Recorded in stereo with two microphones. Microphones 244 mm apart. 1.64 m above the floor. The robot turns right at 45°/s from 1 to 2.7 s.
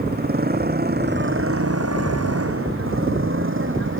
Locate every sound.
0.0 s a motorcycle: 40° right (ahead or behind); by 4.0 s 55° right (ahead or behind)